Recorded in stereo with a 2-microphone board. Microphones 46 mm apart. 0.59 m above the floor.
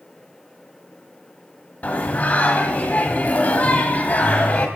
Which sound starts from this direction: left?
Singing, at 1.8 s.